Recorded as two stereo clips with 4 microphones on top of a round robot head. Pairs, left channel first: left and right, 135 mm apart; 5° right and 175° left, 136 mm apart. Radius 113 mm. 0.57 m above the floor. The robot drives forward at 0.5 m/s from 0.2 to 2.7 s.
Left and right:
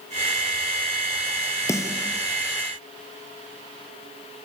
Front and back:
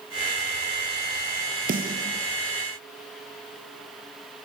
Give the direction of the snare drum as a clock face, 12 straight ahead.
7 o'clock.